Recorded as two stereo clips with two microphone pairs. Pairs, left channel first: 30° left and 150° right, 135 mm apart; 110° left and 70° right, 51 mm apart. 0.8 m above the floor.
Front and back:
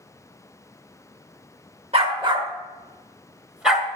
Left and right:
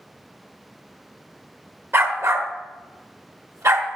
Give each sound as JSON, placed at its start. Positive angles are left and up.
{"t": 1.9, "sound": "a dog barking", "azimuth_deg": -105, "distance_m": 1.1}